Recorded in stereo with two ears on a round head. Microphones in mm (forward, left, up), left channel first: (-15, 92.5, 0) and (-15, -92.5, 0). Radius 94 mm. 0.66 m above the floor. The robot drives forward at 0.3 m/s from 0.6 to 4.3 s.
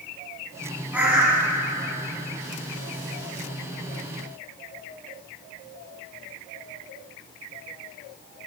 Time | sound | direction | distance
0.9 | a bird | 5° right (ahead or behind) | 2.0 m